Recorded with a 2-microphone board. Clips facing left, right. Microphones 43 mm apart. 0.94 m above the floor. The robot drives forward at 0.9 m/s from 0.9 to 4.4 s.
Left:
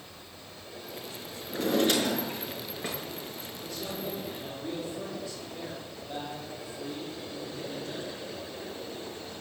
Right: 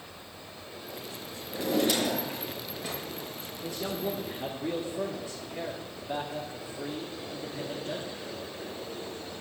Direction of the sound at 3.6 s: 25° right (ahead or behind).